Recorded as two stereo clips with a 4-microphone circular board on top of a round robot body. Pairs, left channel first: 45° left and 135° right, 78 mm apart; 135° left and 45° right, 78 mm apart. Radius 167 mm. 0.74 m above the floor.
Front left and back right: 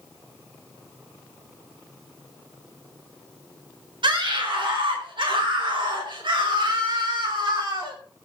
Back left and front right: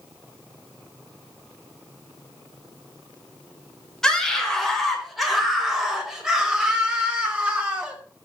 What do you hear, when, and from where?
4.0 s a scream: 140° right, 4.5 m; by 8.0 s 120° right, 6 m